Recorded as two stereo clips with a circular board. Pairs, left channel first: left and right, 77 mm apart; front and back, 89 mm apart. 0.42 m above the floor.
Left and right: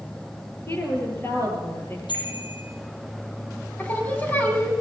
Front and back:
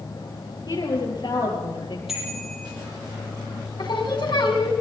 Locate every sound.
0.7 s a woman speaking: 35° left, 8 m; by 2.0 s 30° left, 8.5 m
2.1 s a bicycle bell: 95° left, 8.5 m
3.8 s singing: 25° left, 4 m